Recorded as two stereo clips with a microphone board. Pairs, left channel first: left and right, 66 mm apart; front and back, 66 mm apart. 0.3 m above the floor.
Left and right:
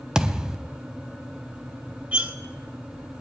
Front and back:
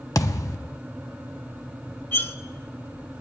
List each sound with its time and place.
0.1 s a thud: 10° right, 0.7 m
2.1 s cutlery clinking: 35° right, 0.8 m